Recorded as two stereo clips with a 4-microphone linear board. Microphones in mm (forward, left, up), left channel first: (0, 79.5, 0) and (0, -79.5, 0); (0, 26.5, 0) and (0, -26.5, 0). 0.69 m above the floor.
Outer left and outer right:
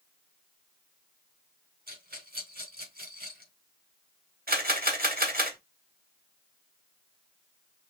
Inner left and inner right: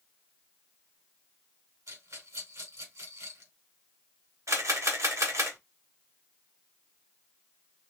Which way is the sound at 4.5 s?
75° right (ahead or behind).